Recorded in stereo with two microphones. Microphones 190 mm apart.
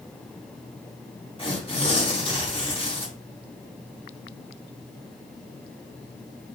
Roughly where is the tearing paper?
Left.